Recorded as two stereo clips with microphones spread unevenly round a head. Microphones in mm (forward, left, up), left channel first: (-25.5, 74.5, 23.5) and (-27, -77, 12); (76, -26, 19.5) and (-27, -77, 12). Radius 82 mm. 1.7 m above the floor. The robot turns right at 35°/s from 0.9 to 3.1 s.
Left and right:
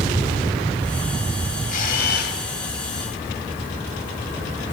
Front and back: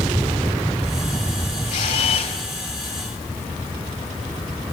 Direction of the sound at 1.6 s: 50° left.